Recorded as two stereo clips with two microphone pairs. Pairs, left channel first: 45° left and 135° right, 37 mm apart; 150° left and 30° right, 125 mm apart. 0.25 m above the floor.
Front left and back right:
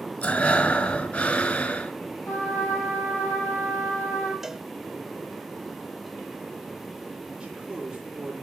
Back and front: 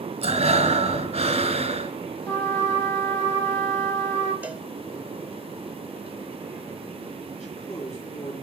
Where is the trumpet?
75° left, 4.5 m.